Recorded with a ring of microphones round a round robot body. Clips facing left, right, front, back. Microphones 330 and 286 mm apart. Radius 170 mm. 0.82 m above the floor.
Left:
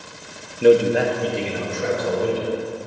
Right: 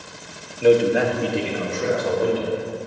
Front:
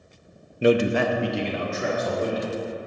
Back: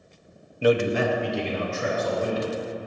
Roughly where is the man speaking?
Ahead left.